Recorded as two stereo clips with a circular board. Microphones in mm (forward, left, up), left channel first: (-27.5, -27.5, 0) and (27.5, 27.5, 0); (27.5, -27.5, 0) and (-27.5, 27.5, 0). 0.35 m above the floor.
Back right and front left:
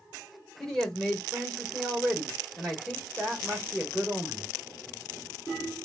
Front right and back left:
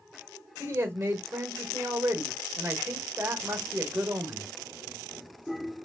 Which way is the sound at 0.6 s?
140° left.